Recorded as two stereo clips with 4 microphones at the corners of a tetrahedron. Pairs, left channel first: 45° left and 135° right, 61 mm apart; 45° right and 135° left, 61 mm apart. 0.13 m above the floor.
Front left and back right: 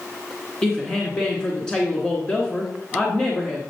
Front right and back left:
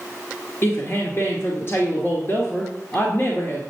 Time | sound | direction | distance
0.6 | a woman speaking | 25° right | 2 m